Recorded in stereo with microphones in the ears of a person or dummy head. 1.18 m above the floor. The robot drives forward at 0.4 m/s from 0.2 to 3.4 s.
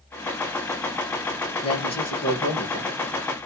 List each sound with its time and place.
1.6 s a man speaking: 30° left (ahead or behind), 1.4 m; by 2.9 s 25° left (ahead or behind), 1.8 m